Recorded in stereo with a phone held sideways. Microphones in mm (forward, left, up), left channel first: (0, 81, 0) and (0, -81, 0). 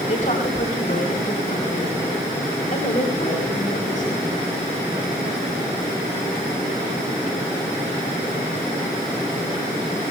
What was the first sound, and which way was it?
A woman speaking, 55° left (ahead or behind).